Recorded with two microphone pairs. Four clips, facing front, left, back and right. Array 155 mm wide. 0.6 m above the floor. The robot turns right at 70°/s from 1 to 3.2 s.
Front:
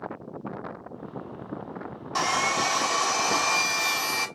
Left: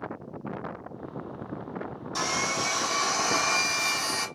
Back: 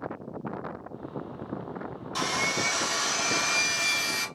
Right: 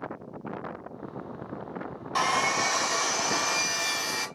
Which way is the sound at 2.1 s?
45° right.